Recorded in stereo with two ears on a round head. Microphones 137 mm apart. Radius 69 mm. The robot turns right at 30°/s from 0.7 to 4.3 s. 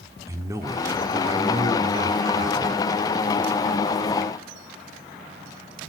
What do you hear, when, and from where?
0.3 s a man speaking: 135° right, 0.9 m; by 2.8 s 75° right, 0.9 m